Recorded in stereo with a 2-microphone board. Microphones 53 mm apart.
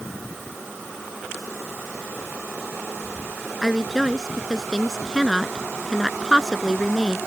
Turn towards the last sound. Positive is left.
turn(degrees=-5)  # may be behind; listen again after turning